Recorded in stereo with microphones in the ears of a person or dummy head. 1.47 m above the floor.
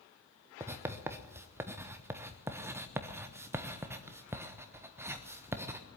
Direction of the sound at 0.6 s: 20° right (ahead or behind).